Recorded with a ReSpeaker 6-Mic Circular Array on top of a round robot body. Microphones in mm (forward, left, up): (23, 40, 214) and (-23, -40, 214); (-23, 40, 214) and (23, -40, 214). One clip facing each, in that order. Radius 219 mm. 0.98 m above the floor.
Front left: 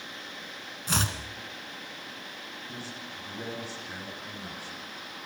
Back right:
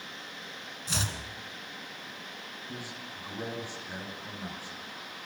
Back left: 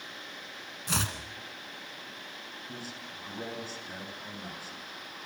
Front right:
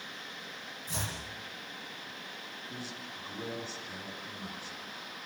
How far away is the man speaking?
About 10 m.